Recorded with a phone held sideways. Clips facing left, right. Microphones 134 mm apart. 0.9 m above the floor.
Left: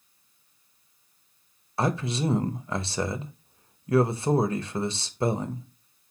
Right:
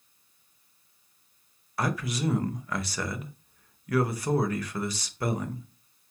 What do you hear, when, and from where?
1.8 s a man speaking: 25° left (ahead or behind), 0.5 m